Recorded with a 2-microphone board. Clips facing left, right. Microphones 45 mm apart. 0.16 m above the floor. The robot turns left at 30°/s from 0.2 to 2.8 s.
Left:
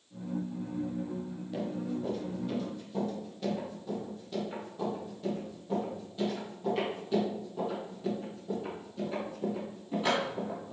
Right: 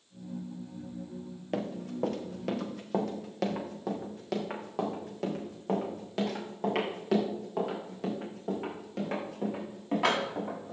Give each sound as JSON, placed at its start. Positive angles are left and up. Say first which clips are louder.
{"t": 1.5, "sound": "running footsteps", "louder": "even", "side_deg": -50, "distance_m": 1.9}